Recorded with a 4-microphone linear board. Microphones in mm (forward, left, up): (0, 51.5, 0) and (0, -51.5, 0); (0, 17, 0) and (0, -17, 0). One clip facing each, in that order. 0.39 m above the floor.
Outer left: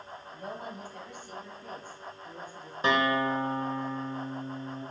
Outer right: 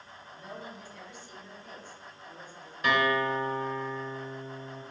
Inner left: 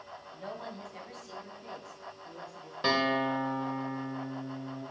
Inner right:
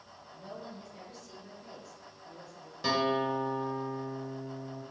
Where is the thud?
No thud in this recording.